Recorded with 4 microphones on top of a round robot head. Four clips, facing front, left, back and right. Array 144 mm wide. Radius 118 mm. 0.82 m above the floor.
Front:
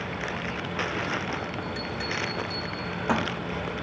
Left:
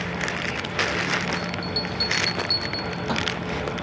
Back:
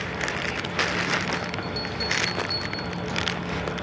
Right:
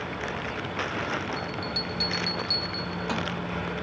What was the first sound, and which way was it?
A bell, 25° left.